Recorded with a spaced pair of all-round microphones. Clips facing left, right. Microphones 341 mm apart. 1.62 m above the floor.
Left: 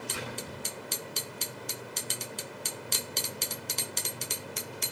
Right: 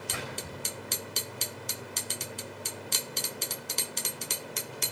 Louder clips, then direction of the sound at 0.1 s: Even; 70° right (ahead or behind).